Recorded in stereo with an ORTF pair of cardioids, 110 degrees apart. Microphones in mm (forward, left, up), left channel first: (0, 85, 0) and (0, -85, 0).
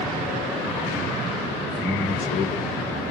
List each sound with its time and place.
1.6 s a man speaking: 10° right, 0.5 m; by 3.0 s 45° left, 1.0 m